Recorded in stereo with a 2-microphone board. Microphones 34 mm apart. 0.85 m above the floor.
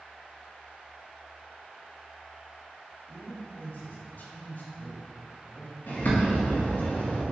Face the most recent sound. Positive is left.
turn(degrees=60)  # may be behind; listen again after turning